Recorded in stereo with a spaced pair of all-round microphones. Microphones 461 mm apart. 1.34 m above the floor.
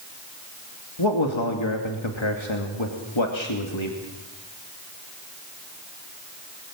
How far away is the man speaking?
About 2 m.